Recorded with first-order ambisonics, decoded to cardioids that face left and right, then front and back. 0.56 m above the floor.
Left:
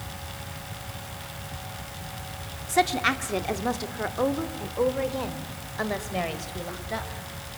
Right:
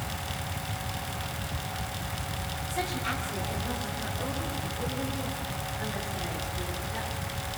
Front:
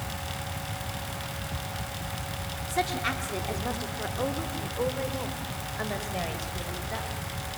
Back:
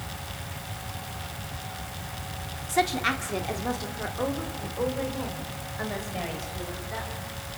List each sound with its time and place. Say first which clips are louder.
2.7 s a woman speaking: left 10 dB, back 4 dB; 115° left, 1.6 m; by 7.1 s 80° left, 4 m